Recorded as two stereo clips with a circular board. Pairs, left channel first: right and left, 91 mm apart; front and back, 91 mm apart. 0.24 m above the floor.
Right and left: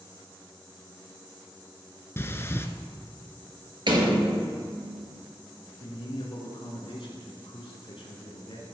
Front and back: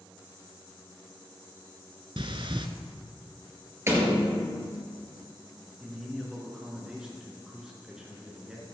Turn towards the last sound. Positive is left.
turn(degrees=-95)